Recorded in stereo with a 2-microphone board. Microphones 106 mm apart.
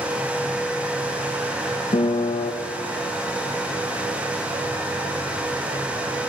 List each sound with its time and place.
1.9 s a piano: 60° left (ahead or behind), 0.7 m